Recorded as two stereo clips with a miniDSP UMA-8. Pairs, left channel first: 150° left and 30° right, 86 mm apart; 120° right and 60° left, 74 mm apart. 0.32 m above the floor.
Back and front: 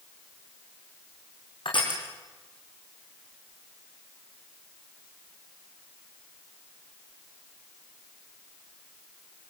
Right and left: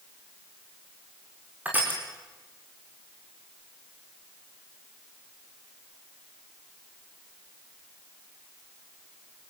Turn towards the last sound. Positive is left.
turn(degrees=130)